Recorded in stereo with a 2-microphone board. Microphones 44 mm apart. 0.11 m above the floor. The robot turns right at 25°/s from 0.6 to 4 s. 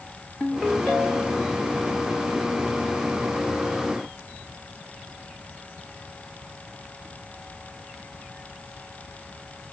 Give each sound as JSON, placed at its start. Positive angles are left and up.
{"t": 0.4, "sound": "a ringtone", "side_deg": 20, "distance_m": 3.5}